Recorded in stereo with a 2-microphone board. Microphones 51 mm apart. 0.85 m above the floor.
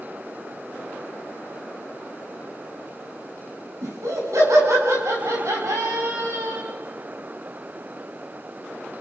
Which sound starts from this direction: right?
Laughter, at 3.8 s.